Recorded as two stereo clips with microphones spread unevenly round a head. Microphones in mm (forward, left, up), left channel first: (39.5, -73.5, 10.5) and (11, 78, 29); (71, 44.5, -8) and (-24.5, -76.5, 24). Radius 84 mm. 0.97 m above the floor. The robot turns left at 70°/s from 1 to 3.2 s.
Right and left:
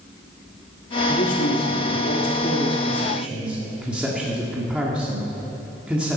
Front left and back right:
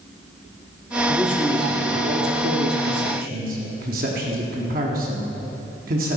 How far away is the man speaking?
About 1.9 m.